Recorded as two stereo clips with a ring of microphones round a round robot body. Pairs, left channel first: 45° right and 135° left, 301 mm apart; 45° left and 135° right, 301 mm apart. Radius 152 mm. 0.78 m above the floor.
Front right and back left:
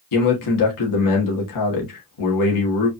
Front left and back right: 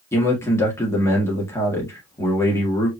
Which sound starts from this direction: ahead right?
A man speaking, at 0.1 s.